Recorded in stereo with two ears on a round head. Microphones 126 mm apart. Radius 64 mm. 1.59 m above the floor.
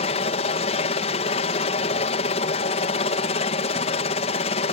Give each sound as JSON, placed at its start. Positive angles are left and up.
{"t": 0.0, "sound": "a helicopter", "side_deg": 45}